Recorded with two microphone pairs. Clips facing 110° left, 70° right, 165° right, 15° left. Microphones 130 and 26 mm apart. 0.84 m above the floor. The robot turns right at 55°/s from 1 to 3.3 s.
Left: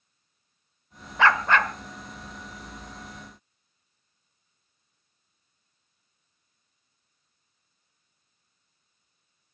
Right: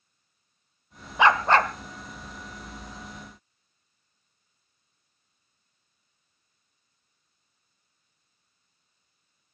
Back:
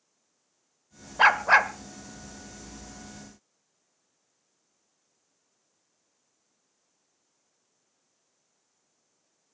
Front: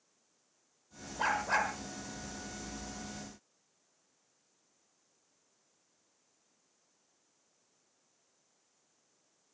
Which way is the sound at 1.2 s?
145° right.